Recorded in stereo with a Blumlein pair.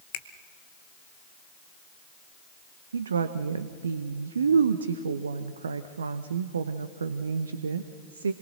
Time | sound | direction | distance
0.1 | a finger snap | 50° left | 1.4 m
2.9 | a woman speaking | 70° right | 0.8 m